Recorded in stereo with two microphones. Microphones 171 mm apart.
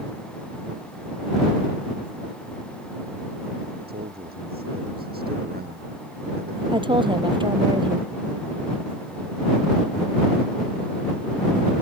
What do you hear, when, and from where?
3.9 s a man speaking: 65° right (ahead or behind)
6.7 s a woman speaking: 25° right (ahead or behind)